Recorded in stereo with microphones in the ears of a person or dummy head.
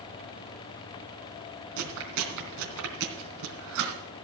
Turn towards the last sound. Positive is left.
turn(degrees=-70)  # may be behind; listen again after turning